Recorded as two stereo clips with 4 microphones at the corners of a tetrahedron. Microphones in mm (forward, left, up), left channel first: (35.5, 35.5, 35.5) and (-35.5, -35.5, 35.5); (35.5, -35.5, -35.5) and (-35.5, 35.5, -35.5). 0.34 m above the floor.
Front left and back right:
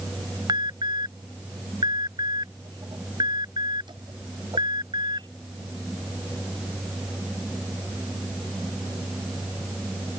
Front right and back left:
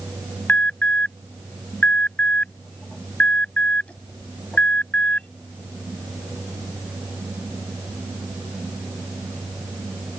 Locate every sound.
0.5 s an alarm: 120° right